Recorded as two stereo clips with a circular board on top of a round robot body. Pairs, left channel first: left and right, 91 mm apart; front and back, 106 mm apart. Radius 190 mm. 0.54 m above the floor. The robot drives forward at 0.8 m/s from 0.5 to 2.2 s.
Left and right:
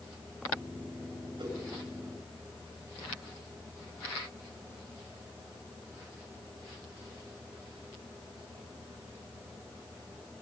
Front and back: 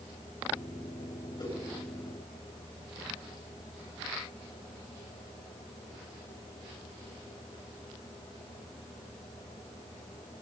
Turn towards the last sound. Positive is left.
turn(degrees=-50)